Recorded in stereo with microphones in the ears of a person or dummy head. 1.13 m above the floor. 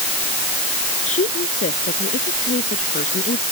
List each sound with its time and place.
1.1 s a woman speaking: 35° left (ahead or behind); by 3.4 s 30° left (ahead or behind)